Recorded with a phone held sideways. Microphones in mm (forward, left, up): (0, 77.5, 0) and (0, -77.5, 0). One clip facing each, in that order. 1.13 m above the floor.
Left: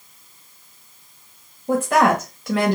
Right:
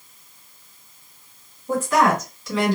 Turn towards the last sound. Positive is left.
turn(degrees=60)  # may be behind; listen again after turning